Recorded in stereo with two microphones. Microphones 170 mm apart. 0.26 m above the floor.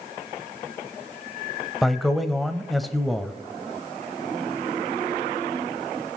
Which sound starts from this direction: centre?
A man speaking, at 1.8 s.